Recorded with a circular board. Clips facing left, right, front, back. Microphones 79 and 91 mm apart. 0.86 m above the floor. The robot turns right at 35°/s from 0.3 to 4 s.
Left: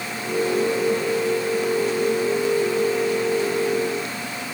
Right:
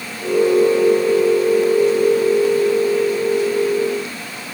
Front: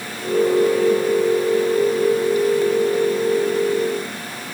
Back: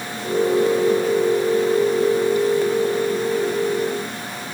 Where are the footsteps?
No footsteps in this recording.